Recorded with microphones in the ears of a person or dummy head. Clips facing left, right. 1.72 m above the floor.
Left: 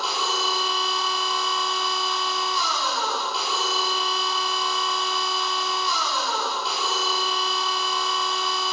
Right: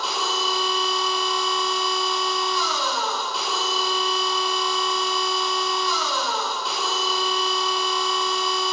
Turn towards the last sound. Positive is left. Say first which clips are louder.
# right 1 dB
turn(degrees=0)  # may be behind; listen again after turning